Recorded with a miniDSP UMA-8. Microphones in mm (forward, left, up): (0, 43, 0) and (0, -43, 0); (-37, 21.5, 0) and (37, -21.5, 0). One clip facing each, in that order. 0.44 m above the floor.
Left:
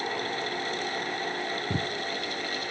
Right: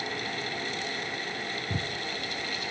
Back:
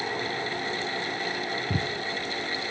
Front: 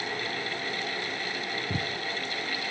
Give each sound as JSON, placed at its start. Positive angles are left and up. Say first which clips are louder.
{"t": 1.7, "sound": "footsteps", "louder": "left 3 dB, back 3 dB", "azimuth_deg": 65, "distance_m": 0.5}